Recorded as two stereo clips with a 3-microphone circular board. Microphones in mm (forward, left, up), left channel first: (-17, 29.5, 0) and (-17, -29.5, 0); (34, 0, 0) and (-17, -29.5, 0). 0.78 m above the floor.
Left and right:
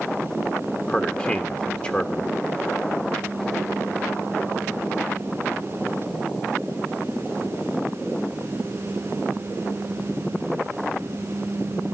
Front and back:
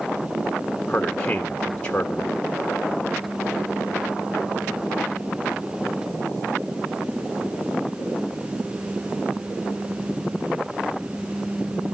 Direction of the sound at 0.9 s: 75° left.